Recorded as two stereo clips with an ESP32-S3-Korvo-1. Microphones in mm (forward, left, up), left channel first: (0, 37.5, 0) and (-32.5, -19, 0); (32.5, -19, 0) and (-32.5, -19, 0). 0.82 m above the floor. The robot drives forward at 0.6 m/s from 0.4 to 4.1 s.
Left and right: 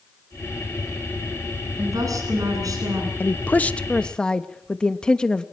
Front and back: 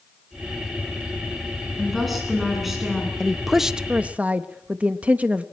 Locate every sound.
1.8 s a woman speaking: 90° right, 9.5 m; by 3.1 s 95° right, 9.5 m
3.2 s a woman speaking: 80° left, 1.0 m; by 5.4 s 130° left, 1.0 m